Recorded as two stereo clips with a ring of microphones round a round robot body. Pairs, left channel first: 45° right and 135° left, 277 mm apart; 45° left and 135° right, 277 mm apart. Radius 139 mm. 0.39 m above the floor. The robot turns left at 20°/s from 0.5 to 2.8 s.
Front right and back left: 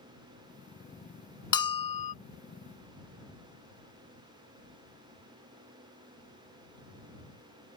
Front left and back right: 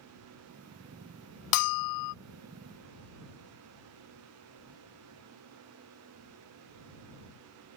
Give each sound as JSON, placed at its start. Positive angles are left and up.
{"t": 1.5, "sound": "a bell", "azimuth_deg": 30}